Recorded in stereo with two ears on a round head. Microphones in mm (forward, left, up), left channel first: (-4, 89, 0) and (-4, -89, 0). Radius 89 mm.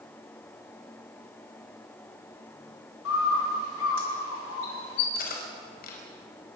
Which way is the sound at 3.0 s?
75° left (ahead or behind).